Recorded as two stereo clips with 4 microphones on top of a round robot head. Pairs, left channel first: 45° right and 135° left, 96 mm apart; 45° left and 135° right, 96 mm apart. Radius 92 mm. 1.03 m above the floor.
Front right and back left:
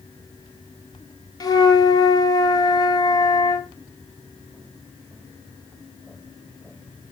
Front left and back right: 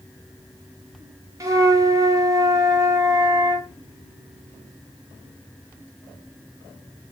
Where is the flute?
85° right, 1.1 m.